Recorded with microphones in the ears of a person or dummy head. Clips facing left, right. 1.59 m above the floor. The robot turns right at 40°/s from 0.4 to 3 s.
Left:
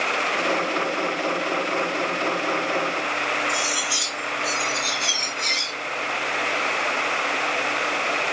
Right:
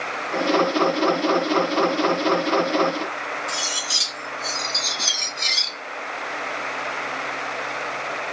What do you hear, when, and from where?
3.5 s cutlery clinking: 70° right (ahead or behind), 2.5 m